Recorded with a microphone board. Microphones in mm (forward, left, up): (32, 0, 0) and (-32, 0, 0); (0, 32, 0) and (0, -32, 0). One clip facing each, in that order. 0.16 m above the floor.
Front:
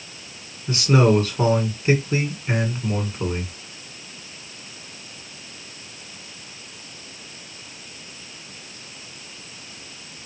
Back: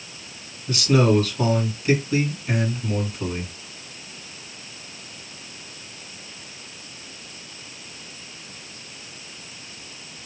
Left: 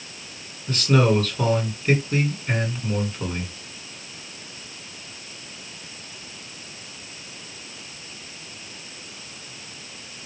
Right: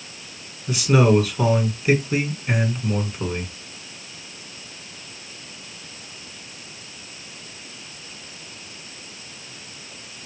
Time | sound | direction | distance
0.7 | a man speaking | 15° right | 1.5 m